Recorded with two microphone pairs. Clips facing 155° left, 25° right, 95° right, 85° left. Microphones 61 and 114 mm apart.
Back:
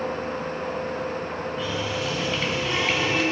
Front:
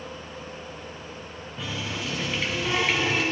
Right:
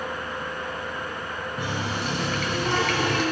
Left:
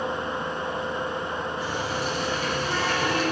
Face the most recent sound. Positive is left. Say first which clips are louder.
# back 2 dB, left 1 dB
turn(degrees=-110)